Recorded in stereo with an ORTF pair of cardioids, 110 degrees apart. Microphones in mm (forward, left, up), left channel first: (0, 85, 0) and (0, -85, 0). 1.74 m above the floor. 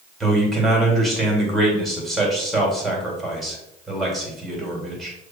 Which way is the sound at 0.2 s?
Straight ahead.